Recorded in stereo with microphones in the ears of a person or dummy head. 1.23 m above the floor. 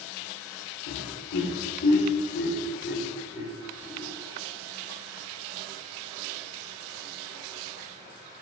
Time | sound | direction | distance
0.9 | laughter | 70° left (ahead or behind) | 3.5 m